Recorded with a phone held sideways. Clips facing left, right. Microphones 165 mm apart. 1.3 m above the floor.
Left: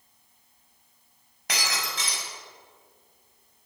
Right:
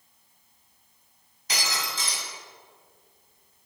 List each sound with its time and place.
1.5 s breaking glass: 65° left (ahead or behind), 6 m